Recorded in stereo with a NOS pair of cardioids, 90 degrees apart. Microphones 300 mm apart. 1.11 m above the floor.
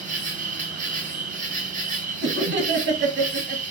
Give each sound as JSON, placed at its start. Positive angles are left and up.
{"t": 0.0, "sound": "an insect", "azimuth_deg": -25, "distance_m": 0.7}
{"t": 2.2, "sound": "laughter", "azimuth_deg": -40, "distance_m": 1.1}